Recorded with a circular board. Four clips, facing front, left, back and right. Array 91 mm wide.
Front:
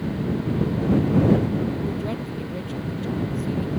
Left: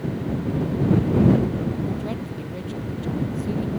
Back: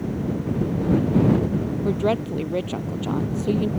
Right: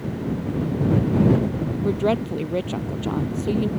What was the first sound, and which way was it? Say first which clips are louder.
A woman speaking: right 7 dB, back 6 dB; 130° right.